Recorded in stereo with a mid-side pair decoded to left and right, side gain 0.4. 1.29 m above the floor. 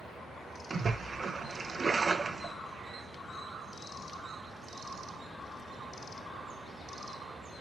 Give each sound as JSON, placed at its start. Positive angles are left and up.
{"t": 0.7, "sound": "a splash", "azimuth_deg": -40, "distance_m": 0.7}